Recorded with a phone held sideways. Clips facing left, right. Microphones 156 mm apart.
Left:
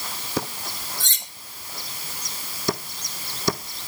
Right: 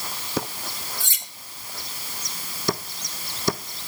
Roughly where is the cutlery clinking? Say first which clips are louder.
Left 1 dB; centre.